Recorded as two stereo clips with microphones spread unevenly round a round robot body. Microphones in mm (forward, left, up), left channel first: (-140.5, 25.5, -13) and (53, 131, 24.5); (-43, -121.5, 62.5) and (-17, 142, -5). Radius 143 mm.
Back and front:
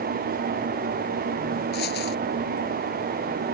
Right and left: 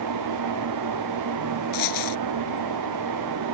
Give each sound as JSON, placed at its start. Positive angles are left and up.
{"t": 1.7, "sound": "a dropped coin", "azimuth_deg": -95}